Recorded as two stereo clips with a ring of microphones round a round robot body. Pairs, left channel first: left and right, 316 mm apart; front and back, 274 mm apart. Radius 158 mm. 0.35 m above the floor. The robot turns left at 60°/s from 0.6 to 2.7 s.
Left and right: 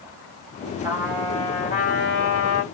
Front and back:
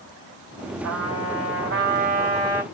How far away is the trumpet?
About 2 m.